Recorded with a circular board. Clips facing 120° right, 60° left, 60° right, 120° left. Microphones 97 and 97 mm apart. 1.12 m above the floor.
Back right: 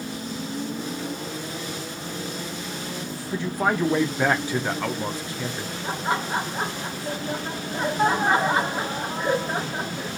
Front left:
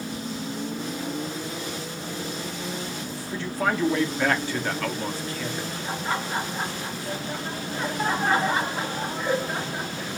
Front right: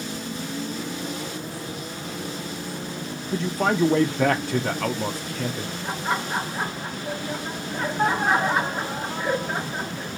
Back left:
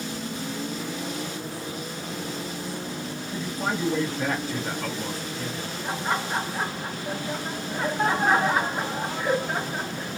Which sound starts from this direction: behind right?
Laughter, at 5.8 s.